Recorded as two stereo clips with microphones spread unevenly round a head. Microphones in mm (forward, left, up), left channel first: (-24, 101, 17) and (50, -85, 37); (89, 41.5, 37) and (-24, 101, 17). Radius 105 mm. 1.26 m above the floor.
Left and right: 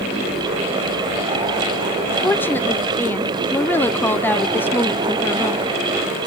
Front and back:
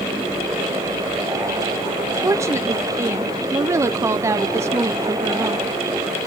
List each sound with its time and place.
2.2 s a woman speaking: 175° left, 0.6 m